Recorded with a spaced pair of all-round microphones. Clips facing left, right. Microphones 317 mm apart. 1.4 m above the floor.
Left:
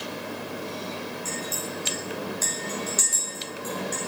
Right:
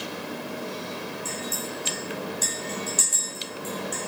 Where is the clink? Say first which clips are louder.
Even; 40° right (ahead or behind), 4.5 m.